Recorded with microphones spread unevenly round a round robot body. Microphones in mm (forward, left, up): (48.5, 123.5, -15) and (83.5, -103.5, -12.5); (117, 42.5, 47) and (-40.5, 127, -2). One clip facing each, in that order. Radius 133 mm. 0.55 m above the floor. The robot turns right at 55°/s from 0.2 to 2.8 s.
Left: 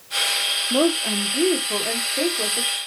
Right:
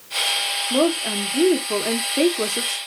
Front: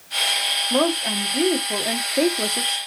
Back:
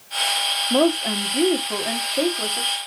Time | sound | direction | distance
0.7 | a woman speaking | straight behind | 0.8 m